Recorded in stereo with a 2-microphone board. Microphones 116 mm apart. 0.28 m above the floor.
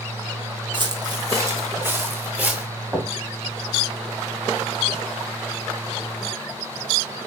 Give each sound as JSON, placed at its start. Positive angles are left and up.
{"t": 0.7, "sound": "footsteps", "side_deg": -45, "distance_m": 1.2}
{"t": 2.9, "sound": "knocking", "side_deg": -15, "distance_m": 1.7}